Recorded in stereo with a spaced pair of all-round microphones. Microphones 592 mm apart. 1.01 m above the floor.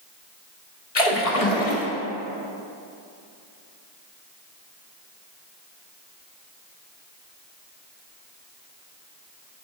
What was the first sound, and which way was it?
A splash, 80° left.